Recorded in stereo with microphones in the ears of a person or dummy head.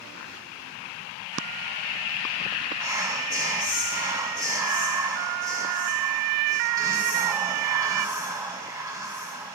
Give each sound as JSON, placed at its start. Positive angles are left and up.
{"t": 2.8, "sound": "whispering", "side_deg": -15, "distance_m": 0.6}